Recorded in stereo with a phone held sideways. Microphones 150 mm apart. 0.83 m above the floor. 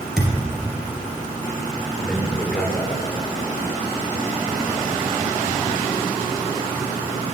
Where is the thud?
5° right (ahead or behind), 2.5 m.